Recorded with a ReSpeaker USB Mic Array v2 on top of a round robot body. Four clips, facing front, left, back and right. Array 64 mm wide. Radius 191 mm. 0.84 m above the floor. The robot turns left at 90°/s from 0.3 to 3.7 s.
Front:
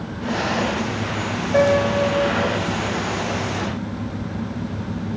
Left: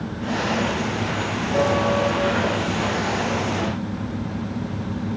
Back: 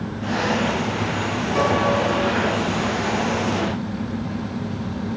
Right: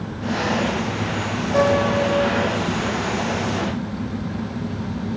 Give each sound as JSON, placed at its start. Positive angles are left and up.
{"t": 1.5, "sound": "a piano", "azimuth_deg": -10, "distance_m": 8.5}